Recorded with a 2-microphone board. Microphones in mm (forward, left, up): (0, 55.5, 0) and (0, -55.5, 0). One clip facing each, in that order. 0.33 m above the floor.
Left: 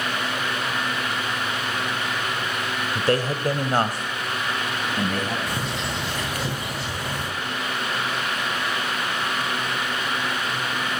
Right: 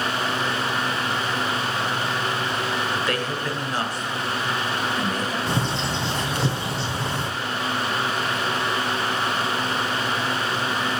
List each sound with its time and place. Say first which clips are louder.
3.0 s a man speaking: left 3 dB; 30° left (ahead or behind), 0.9 m; by 5.4 s 60° left (ahead or behind), 2.5 m
5.5 s a bird: right 3 dB; 30° right (ahead or behind), 3 m